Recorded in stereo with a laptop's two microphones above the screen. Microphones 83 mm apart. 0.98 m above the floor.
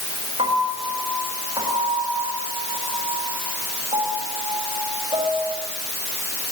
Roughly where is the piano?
Right.